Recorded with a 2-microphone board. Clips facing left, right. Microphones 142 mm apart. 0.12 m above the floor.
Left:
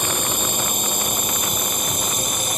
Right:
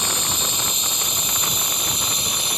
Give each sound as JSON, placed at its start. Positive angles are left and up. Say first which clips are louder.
{"t": 0.0, "sound": "a drone", "louder": "left 4 dB", "side_deg": 50}